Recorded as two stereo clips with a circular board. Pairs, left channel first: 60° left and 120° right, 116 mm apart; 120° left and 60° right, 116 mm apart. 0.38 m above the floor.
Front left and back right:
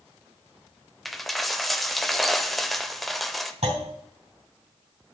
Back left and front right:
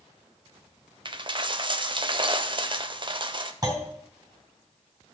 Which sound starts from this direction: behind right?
A clunk, at 3.6 s.